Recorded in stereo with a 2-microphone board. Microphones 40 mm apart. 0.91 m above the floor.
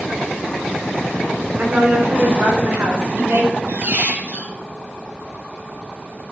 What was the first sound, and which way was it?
A woman speaking, 60° right (ahead or behind).